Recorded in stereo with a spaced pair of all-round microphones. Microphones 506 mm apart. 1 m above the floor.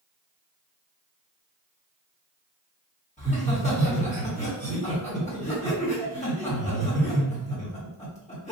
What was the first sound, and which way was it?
Laughter, 15° left (ahead or behind).